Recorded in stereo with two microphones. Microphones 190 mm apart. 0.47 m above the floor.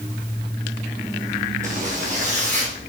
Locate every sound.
1.6 s a zipper: 40° right (ahead or behind), 1.8 m